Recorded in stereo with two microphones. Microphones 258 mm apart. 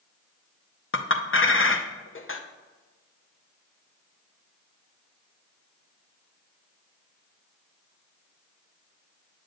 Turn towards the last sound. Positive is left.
turn(degrees=50)  # may be behind; listen again after turning